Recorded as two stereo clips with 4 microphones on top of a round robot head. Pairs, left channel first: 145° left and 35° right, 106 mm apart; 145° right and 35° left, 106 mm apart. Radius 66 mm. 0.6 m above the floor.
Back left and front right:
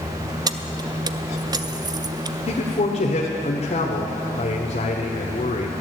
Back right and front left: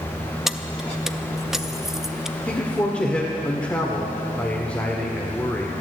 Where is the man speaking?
135° left, 1.5 m.